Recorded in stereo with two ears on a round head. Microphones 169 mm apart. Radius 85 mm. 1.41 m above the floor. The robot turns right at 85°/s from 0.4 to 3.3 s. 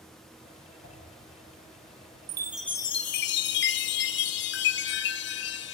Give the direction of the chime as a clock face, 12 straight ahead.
1 o'clock.